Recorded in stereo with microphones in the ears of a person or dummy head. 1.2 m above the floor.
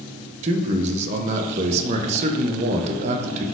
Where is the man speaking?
40° right (ahead or behind), 0.5 m.